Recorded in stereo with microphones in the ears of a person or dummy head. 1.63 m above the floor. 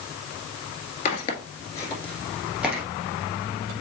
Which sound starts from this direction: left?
Footsteps, at 1.1 s.